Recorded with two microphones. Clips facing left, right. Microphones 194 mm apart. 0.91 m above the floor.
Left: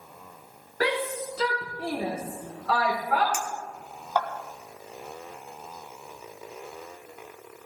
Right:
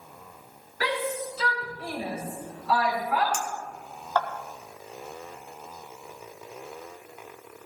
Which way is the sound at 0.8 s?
50° left (ahead or behind).